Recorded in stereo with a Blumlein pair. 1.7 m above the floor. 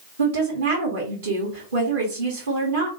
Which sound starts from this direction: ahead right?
A woman speaking, at 0.2 s.